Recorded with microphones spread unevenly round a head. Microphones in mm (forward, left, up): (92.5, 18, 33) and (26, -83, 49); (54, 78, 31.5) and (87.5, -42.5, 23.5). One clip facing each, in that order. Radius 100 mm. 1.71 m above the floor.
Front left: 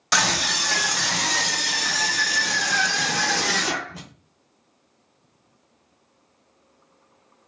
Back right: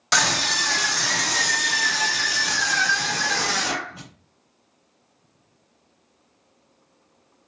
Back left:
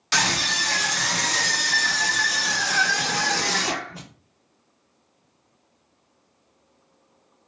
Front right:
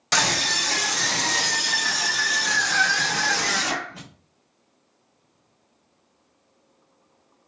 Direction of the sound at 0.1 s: 30° right.